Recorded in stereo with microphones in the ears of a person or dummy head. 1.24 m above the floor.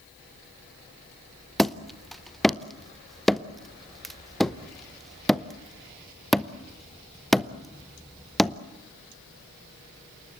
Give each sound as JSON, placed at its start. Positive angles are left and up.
{"t": 1.6, "sound": "hammering", "side_deg": 0, "distance_m": 0.6}